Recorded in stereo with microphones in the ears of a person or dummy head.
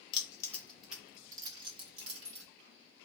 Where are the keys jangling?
25° left (ahead or behind), 0.7 m; by 2.5 s 45° right (ahead or behind), 1.2 m.